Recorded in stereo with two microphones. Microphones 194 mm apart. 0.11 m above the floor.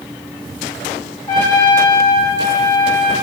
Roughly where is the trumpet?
Left.